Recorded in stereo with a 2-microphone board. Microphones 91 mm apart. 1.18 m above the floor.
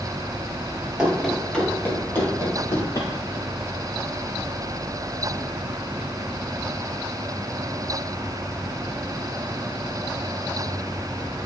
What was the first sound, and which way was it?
Running footsteps, 10° right (ahead or behind).